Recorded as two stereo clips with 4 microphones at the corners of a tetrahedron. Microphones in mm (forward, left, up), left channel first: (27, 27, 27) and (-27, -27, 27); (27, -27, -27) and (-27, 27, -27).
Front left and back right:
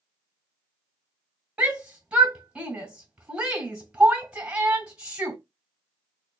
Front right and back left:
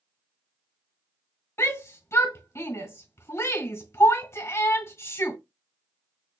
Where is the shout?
70° right, 1.9 m.